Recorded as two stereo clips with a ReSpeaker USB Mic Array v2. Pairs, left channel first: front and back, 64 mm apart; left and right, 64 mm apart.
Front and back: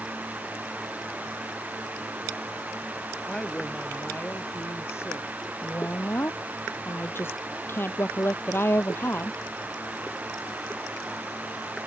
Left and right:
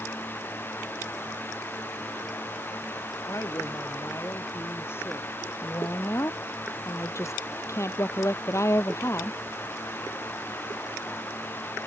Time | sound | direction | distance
3.3 | a woman speaking | 70° left | ?
5.6 | a woman speaking | 50° left | ?